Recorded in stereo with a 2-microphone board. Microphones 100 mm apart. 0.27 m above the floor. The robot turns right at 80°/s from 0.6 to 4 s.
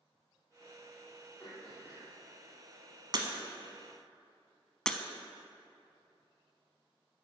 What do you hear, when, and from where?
1.4 s throat clearing: 155° left, 3.5 m; by 2.1 s 145° right, 3.5 m
3.1 s breaking glass: 45° right (ahead or behind), 1.0 m; by 3.3 s 40° right (ahead or behind), 1.0 m
4.9 s breaking glass: 10° left (ahead or behind), 0.5 m